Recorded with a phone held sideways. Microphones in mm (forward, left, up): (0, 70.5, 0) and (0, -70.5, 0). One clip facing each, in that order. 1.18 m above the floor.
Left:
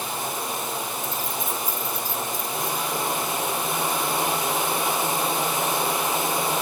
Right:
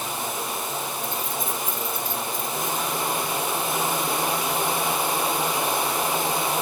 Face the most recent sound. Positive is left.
turn(degrees=40)  # may be behind; listen again after turning